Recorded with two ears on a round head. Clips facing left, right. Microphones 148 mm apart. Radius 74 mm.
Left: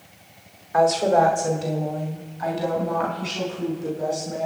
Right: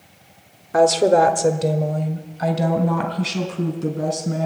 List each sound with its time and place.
0.7 s a woman speaking: 55° right (ahead or behind), 1.2 m; by 4.5 s 80° right, 5 m